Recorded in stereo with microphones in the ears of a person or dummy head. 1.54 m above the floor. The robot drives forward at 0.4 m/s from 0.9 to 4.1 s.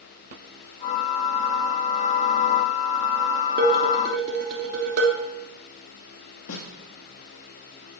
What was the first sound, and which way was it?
Dishes clattering, 55° right (ahead or behind).